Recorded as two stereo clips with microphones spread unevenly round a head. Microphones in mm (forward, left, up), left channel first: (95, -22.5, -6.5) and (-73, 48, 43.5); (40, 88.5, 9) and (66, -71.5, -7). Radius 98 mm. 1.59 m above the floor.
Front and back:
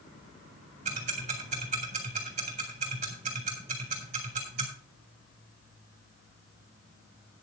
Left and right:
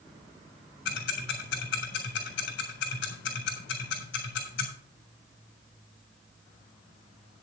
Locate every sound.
0.8 s ticking: 110° left, 3.5 m